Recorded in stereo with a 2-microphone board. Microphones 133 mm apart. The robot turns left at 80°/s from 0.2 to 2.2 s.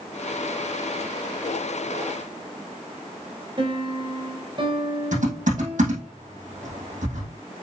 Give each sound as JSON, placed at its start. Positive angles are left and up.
{"t": 3.6, "sound": "a piano", "side_deg": -40, "distance_m": 1.5}
{"t": 5.1, "sound": "typing on a keyboard", "side_deg": -75, "distance_m": 4.0}